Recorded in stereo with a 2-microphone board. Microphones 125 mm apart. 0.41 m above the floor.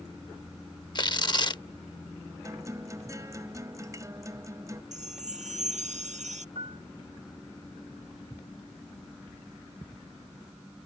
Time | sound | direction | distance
0.9 | tearing paper | 35° left (ahead or behind) | ?
2.4 | a guitar | 25° right (ahead or behind) | ?
4.9 | a chime | 70° right (ahead or behind) | ?
6.5 | a piano | 45° right (ahead or behind) | ?